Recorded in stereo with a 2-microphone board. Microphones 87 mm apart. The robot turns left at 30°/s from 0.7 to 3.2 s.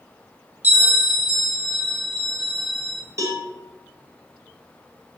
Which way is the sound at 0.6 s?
15° right (ahead or behind).